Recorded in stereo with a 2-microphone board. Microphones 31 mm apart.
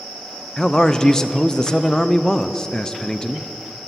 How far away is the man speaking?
About 0.5 m.